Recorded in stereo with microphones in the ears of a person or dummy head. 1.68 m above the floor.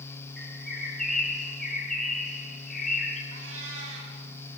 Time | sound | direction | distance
0.4 | a bird | 5° left (ahead or behind) | 4.5 m
3.3 | a cat meowing | 80° right | 6 m